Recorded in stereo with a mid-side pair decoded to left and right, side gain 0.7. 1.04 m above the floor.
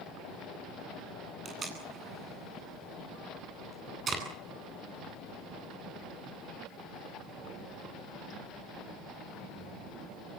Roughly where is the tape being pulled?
Ahead right.